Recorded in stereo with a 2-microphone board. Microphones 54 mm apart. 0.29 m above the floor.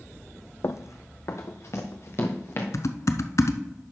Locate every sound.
0.6 s running footsteps: 65° left (ahead or behind), 0.6 m; by 2.6 s 55° left (ahead or behind), 2 m
2.7 s typing on a keyboard: 65° left (ahead or behind), 0.6 m